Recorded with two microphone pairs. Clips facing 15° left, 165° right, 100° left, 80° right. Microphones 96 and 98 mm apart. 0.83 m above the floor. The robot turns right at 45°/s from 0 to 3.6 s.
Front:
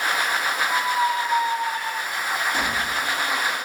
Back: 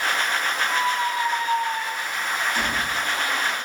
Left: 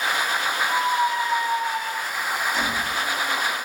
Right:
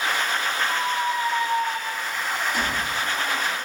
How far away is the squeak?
About 0.9 m.